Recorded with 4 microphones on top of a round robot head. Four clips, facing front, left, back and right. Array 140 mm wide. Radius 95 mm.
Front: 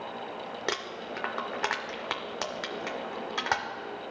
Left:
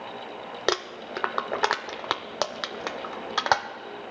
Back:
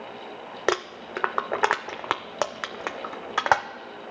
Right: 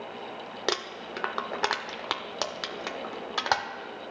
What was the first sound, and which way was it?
Crumpling, 155° left.